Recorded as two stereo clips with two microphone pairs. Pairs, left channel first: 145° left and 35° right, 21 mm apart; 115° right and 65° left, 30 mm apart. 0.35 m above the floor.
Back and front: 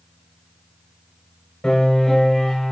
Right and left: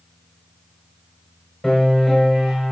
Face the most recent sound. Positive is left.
turn(degrees=175)